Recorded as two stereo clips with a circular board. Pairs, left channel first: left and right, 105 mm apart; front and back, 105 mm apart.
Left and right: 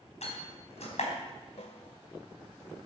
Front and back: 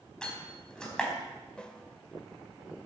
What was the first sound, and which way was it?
A door slam, 80° left.